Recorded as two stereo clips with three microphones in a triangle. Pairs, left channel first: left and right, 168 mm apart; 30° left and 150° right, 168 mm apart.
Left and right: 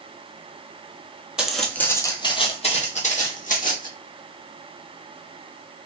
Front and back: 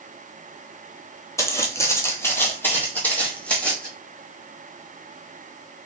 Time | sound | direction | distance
1.4 | footsteps | 15° right | 0.7 m